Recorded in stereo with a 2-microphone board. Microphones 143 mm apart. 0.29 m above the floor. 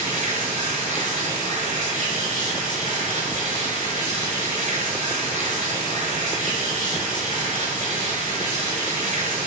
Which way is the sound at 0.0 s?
65° right (ahead or behind).